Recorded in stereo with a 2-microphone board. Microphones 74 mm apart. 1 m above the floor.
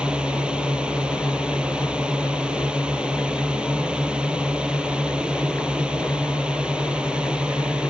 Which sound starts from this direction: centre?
A drone, at 0.0 s.